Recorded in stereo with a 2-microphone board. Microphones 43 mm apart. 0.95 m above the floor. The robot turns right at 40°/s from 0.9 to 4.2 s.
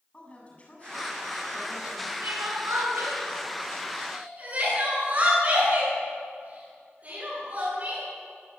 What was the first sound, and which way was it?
A woman speaking, 150° left.